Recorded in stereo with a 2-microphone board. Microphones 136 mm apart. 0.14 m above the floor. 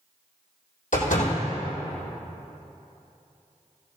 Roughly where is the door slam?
Left.